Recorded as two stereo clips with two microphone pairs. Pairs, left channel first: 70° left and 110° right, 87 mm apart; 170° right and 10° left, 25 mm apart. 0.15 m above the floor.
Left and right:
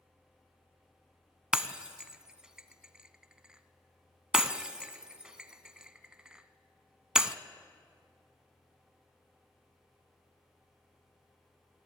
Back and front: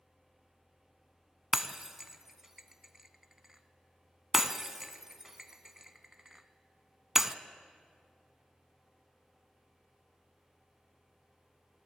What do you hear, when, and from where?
1.5 s breaking glass: 40° right, 0.7 m